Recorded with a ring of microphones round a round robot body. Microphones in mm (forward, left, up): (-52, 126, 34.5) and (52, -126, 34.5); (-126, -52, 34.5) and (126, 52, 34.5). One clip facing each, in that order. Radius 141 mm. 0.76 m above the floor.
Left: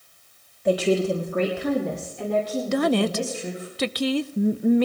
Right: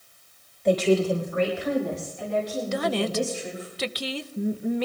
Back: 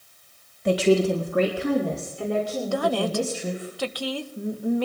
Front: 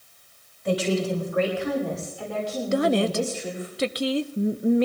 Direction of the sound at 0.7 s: 160° right.